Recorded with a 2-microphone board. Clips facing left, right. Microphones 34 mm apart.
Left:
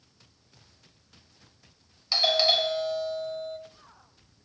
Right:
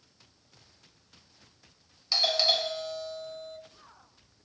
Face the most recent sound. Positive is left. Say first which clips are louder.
# left 3 dB
turn(degrees=10)  # may be behind; listen again after turning